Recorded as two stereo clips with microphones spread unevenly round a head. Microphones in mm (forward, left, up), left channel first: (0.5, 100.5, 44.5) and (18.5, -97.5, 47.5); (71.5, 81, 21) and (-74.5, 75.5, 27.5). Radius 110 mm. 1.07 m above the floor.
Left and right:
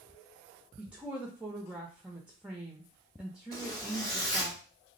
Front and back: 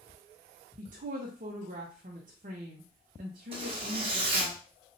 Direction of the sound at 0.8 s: 170° right.